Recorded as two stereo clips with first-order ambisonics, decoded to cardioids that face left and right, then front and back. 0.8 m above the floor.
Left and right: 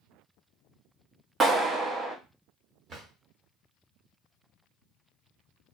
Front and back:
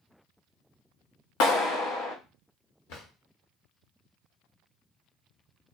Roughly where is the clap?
Ahead.